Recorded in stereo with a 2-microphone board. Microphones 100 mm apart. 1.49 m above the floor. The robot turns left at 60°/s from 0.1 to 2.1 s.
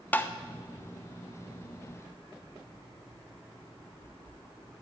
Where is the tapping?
15° left (ahead or behind), 0.5 m; by 0.3 s 25° left (ahead or behind), 0.5 m.